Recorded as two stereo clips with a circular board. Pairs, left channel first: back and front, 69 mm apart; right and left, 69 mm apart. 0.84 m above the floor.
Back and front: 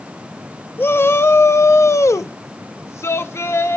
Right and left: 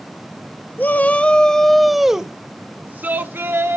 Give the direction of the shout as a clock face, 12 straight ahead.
5 o'clock.